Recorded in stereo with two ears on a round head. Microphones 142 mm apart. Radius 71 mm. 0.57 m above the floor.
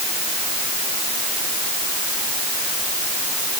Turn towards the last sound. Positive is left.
No sound to turn to.